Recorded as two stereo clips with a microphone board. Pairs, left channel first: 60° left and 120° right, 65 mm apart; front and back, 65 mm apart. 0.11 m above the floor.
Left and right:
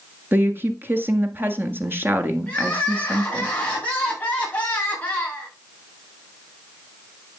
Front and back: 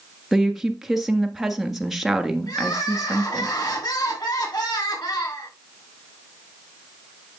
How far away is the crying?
About 7 m.